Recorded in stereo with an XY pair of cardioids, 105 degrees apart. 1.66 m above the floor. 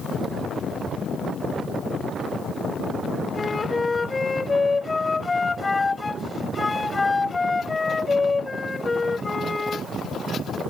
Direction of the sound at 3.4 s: 20° left.